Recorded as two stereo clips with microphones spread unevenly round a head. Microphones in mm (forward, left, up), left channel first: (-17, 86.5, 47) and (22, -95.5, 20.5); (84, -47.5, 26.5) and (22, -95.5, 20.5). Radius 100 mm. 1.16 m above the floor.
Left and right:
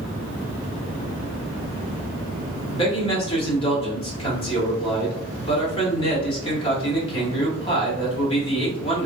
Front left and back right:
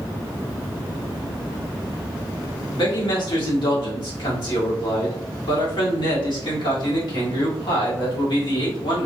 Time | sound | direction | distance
2.7 | a man speaking | 40° left | 1.3 m